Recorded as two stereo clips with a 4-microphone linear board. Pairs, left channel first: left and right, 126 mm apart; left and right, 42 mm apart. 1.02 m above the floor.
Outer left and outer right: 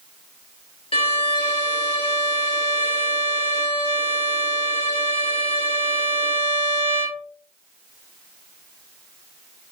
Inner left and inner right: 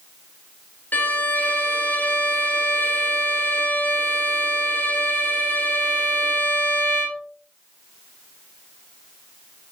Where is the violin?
45° left (ahead or behind), 1.0 m.